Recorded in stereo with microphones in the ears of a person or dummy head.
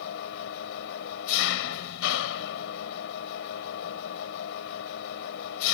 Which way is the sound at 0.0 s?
60° left (ahead or behind).